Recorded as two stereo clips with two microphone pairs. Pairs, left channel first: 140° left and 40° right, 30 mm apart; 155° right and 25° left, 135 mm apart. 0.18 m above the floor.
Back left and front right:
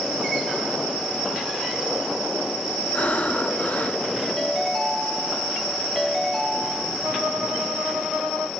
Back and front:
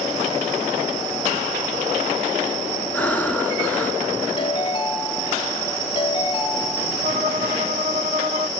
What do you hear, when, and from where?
2.9 s breathing: 130° left, 1.2 m
4.4 s a ringtone: 155° right, 0.9 m
7.0 s a violin: 5° right, 2.5 m